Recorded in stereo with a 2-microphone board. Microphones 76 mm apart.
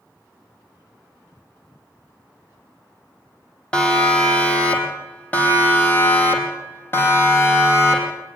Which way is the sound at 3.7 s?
15° left (ahead or behind).